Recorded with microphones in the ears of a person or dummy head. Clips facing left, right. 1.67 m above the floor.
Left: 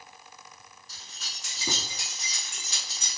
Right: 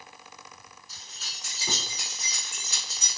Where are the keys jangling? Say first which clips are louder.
Even; 70° left (ahead or behind), 3 m.